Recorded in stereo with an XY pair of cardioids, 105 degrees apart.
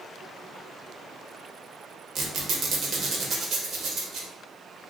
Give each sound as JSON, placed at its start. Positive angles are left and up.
{"t": 2.1, "sound": "a squeak", "azimuth_deg": -65, "distance_m": 0.8}